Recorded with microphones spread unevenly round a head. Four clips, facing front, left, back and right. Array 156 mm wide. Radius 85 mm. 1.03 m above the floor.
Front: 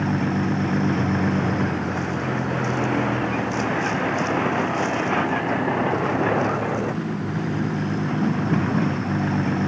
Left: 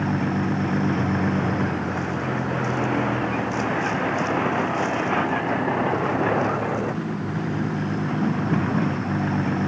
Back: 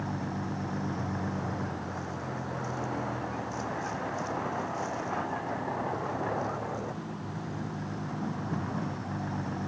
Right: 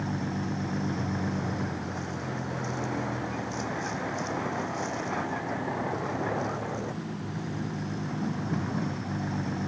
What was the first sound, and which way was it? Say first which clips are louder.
A vehicle: left 8 dB, front 12 dB; 30° left.